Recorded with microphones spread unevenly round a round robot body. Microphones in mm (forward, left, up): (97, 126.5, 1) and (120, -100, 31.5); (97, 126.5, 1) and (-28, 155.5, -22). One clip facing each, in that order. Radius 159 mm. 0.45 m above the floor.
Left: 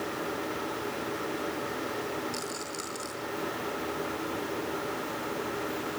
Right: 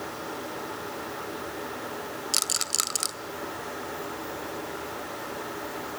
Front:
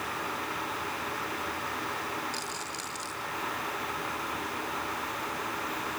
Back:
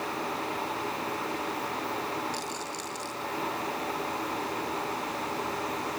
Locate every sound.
2.3 s a rattle: 105° right, 1.5 m